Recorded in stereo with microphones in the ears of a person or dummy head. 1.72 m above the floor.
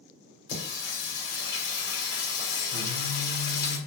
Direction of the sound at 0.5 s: 65° left (ahead or behind).